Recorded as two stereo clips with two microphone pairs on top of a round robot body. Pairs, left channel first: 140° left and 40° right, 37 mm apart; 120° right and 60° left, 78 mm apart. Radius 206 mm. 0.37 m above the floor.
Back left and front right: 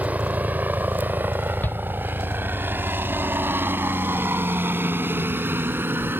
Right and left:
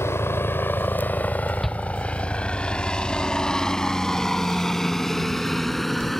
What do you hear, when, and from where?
0.0 s a helicopter: 70° right; by 6.2 s 30° right
1.6 s a shout: 155° left